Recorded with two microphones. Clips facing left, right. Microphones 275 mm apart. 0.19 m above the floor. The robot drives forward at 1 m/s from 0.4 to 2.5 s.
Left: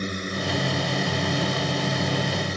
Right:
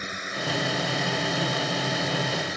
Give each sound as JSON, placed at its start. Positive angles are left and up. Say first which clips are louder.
{"t": 0.0, "sound": "a drone", "louder": "left 6 dB", "side_deg": 40}